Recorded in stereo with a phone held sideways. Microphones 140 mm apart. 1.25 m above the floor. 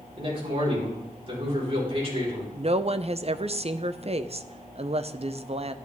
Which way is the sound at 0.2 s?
40° right (ahead or behind).